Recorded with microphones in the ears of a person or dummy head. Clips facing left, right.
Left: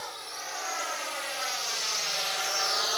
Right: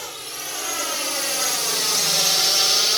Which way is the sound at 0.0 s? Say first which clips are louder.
Right 5 dB; 40° right (ahead or behind).